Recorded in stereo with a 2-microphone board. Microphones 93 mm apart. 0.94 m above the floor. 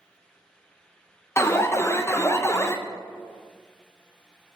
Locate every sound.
1.4 s an alarm: 30° left (ahead or behind), 0.5 m